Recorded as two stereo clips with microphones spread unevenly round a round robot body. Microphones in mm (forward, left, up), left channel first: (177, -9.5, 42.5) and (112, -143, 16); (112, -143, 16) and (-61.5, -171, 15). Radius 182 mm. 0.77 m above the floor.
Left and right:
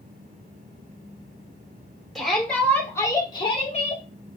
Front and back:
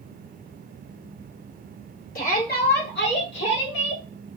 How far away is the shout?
About 3 m.